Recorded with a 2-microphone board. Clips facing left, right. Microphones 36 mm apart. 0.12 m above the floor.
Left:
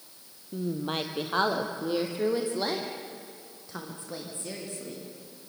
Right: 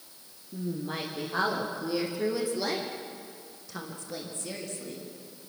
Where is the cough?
No cough in this recording.